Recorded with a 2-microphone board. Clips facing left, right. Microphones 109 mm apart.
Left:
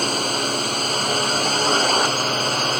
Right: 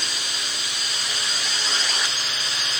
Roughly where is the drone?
Left.